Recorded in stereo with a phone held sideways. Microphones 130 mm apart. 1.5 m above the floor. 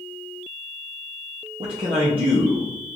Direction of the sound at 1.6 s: 45° right (ahead or behind).